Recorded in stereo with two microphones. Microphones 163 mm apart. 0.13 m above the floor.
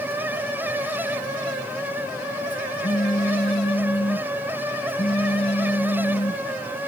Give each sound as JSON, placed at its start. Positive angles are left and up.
{"t": 2.8, "sound": "a phone buzzing", "side_deg": 30}